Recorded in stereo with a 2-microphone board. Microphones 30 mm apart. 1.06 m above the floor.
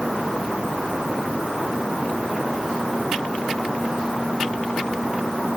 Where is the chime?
I don't hear a chime.